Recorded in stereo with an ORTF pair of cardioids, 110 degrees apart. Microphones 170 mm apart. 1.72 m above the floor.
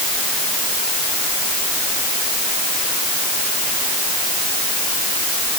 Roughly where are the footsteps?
No footsteps in this recording.